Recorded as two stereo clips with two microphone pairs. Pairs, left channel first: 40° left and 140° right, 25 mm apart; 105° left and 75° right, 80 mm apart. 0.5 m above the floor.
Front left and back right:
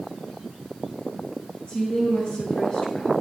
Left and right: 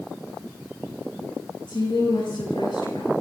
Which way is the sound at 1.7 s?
90° left.